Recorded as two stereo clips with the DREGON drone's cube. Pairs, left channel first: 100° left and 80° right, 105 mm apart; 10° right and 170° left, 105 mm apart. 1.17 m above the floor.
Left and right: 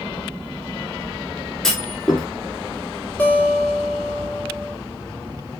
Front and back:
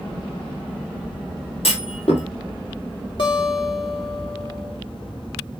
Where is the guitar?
25° left, 2 m.